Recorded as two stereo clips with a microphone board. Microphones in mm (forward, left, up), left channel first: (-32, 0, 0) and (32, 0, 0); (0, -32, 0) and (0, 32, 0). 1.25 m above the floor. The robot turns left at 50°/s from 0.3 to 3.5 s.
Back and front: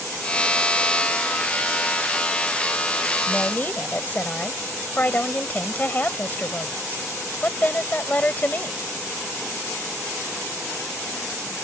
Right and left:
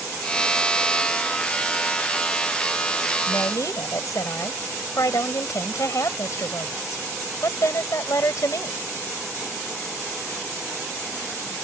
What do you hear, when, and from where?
3.3 s a woman speaking: 105° right; by 8.8 s 120° right